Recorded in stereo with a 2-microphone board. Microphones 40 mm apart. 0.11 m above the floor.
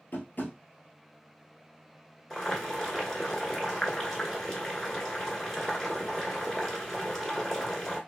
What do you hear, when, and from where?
0.1 s tapping: 55° left (ahead or behind), 1.0 m
2.3 s boiling: 10° left (ahead or behind), 1.2 m